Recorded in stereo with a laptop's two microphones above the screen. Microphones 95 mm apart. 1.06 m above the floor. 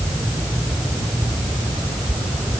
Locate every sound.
Only background noise.